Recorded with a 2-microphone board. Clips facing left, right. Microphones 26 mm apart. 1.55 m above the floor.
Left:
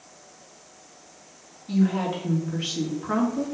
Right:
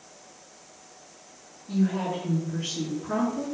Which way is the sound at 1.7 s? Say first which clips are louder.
Left 3 dB; 75° left (ahead or behind).